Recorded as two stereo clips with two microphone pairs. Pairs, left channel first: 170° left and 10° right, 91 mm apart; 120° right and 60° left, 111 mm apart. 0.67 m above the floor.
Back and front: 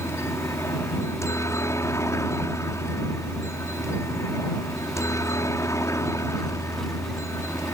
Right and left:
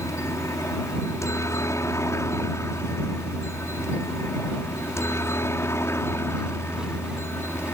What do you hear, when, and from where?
0.0 s a helicopter: 160° right; by 7.8 s 170° right